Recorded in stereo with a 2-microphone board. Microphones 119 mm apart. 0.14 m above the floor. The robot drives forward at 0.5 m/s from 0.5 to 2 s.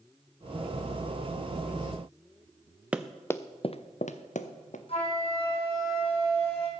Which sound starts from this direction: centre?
Running footsteps, at 2.9 s.